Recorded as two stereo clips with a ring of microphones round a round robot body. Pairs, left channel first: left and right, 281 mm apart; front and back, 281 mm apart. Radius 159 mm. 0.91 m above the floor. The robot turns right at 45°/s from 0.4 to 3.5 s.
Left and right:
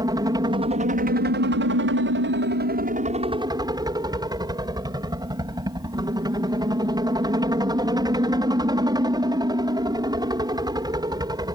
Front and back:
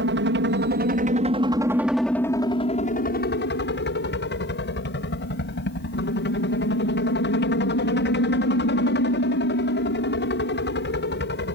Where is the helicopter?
160° right; by 11.6 s 20° right.